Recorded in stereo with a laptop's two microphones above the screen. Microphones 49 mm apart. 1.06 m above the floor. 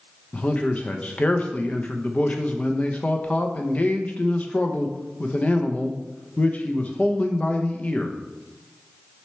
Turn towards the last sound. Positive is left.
turn(degrees=30)  # may be behind; listen again after turning